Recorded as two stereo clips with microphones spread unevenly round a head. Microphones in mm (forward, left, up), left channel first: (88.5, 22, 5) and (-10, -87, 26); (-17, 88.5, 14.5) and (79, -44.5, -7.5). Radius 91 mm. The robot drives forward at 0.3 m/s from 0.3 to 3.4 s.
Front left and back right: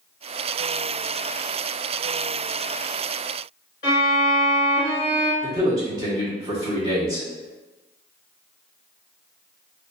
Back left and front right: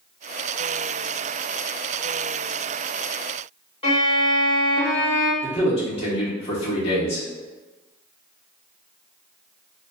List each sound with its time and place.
3.8 s a violin: 85° left, 1.1 m
5.4 s a man speaking: 170° left, 0.7 m